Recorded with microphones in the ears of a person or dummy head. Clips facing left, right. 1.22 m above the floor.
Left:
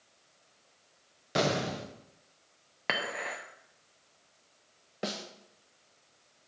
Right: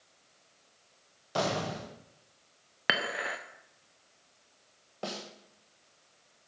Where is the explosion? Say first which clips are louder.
Left 2 dB; 30° left (ahead or behind), 1.1 m.